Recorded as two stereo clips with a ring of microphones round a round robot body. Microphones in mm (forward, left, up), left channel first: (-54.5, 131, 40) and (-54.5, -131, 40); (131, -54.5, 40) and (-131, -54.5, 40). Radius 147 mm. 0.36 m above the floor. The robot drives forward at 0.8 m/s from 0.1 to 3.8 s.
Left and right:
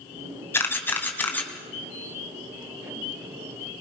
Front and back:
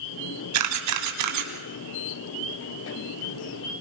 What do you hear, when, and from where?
0.5 s a camera shutter: 170° left, 2.0 m; by 1.5 s 175° left, 2.5 m